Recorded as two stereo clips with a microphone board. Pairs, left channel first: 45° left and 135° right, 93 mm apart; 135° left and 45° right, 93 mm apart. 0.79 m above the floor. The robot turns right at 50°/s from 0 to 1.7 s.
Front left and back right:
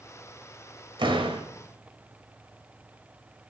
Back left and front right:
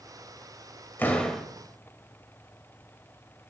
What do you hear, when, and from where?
1.0 s a door slam: 160° right, 2 m; by 1.5 s 135° right, 2 m